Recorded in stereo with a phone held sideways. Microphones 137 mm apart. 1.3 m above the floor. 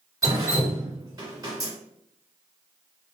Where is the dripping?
25° right (ahead or behind), 2.0 m.